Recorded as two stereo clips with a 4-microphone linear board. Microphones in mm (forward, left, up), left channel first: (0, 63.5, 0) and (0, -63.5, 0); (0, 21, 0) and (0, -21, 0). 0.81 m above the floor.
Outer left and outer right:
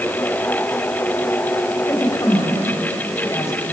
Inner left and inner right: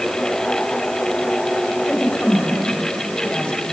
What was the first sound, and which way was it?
A woman speaking, 25° left (ahead or behind).